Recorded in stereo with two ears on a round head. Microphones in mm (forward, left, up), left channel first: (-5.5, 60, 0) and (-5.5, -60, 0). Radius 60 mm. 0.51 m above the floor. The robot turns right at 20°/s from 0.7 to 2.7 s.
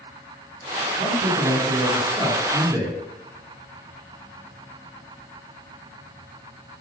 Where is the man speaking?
25° right (ahead or behind), 1.1 m; by 3.0 s 20° right (ahead or behind), 1.1 m.